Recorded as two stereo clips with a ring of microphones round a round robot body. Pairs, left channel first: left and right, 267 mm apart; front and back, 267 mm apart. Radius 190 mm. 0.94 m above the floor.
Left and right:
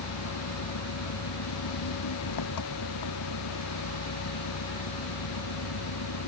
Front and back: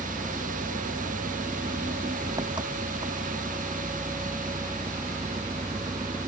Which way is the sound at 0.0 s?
105° left.